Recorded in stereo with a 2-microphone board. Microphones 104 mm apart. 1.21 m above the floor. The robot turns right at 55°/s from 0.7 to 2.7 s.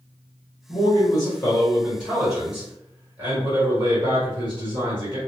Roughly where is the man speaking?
Left.